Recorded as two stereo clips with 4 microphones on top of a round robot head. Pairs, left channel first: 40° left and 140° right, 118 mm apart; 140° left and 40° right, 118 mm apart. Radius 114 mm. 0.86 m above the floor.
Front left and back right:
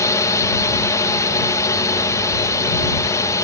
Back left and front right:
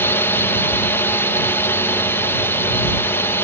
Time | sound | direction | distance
0.0 | a drone | 80° left | ?